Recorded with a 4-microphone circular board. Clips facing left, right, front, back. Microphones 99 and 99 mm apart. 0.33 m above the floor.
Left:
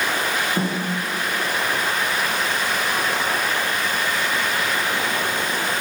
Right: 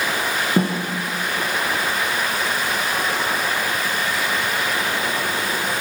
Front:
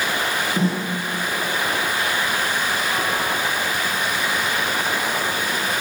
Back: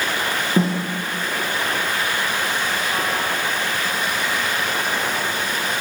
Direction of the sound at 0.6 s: 125° right.